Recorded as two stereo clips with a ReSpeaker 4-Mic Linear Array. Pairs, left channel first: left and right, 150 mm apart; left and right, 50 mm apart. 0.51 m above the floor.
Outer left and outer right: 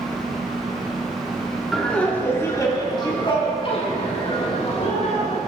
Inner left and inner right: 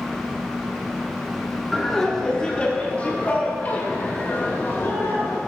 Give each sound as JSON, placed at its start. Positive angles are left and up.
{"t": 1.7, "sound": "laughter", "side_deg": 5, "distance_m": 1.2}